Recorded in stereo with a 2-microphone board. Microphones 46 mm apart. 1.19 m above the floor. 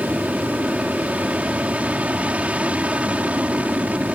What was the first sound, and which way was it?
An aircraft, 30° right (ahead or behind).